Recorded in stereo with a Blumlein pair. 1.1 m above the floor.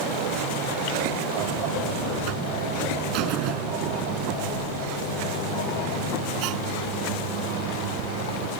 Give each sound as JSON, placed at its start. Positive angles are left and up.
{"t": 1.4, "sound": "a buzzer", "azimuth_deg": -40}